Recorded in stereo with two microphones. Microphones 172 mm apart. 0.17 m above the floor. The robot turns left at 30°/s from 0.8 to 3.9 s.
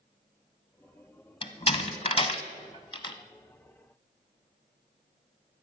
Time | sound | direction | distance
1.4 | a door slam | 30° left (ahead or behind) | 0.9 m